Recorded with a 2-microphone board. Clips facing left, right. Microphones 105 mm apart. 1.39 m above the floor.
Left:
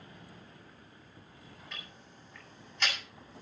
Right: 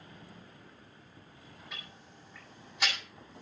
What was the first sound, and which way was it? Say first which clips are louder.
Ticking: even; 10° right (ahead or behind).